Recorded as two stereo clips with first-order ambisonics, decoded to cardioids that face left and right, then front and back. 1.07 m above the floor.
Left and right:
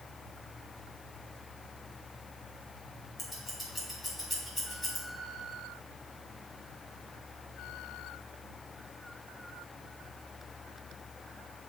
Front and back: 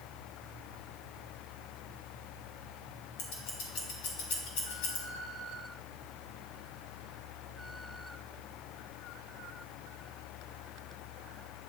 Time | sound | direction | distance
3.2 | scissors | 10° left | 2 m